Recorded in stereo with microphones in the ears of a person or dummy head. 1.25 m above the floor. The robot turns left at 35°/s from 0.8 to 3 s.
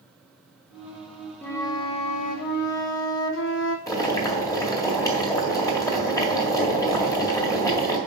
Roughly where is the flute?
Behind.